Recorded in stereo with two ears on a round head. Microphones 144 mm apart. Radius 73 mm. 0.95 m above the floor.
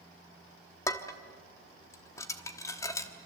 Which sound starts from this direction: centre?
Dishes clattering, at 0.9 s.